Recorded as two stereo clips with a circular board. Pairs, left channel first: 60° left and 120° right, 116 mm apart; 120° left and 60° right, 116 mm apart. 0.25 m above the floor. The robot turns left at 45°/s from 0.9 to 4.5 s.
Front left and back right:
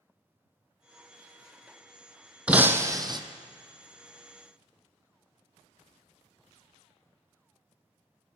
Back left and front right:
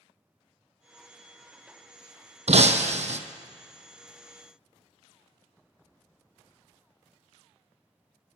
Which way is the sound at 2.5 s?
40° right.